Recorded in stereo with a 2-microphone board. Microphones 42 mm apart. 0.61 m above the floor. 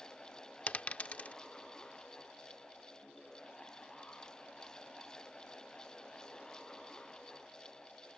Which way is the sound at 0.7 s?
30° left (ahead or behind).